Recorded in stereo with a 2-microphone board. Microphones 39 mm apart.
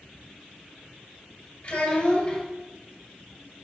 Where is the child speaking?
35° left (ahead or behind), 3 m.